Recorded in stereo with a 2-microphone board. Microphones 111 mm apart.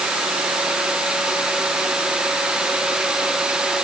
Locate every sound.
Only background noise.